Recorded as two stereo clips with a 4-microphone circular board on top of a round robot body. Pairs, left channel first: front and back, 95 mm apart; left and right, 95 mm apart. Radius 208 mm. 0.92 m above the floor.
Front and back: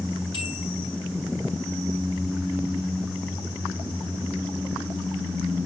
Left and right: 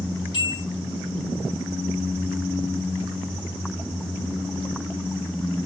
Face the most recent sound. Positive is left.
turn(degrees=40)